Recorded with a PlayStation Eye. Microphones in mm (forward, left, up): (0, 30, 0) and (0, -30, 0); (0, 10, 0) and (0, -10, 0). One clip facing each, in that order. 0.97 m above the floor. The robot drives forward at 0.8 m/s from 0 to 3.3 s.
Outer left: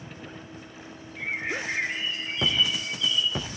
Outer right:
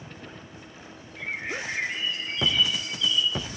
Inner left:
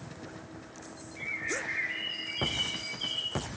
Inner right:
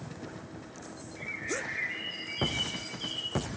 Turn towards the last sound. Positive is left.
turn(degrees=15)  # may be behind; listen again after turning